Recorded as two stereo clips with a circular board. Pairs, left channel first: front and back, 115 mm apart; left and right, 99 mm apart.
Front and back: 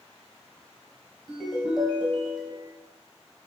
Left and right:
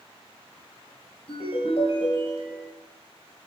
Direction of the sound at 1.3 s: 90° left.